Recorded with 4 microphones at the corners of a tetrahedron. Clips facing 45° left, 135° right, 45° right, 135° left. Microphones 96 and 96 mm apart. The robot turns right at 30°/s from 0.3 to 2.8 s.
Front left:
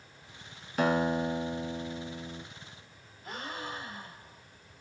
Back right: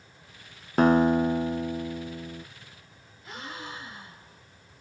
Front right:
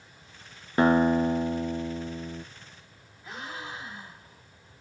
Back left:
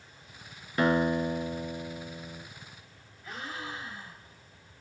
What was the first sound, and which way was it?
A guitar, 100° right.